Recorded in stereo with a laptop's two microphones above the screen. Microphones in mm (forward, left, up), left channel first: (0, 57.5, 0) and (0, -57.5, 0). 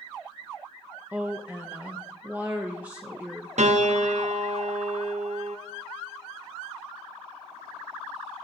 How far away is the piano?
About 0.7 m.